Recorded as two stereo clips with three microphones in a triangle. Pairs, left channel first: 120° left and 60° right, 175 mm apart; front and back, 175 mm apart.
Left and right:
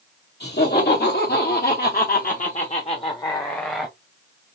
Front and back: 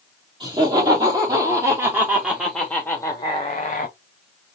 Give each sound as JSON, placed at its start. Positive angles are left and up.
{"t": 0.4, "sound": "laughter", "azimuth_deg": 120, "distance_m": 1.7}